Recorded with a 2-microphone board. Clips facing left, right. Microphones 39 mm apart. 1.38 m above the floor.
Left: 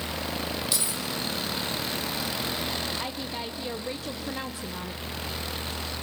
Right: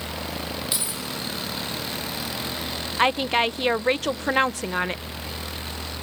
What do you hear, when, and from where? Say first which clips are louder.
0.7 s keys jangling: even; 20° right (ahead or behind), 4.5 m
3.0 s a woman speaking: right 13 dB; 90° right, 0.7 m